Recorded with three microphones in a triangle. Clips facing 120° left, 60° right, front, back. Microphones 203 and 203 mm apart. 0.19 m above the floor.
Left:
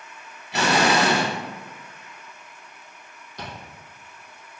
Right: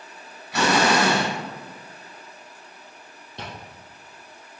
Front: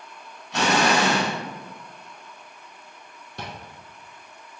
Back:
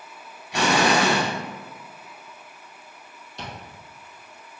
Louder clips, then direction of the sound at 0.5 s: Right 1 dB, back 1 dB; 120° left.